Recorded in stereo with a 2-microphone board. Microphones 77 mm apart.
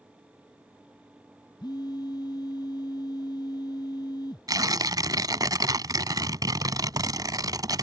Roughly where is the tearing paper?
Right.